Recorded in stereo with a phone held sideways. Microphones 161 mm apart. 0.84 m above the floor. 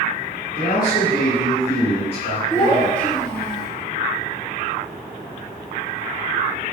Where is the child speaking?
25° left (ahead or behind), 1.2 m.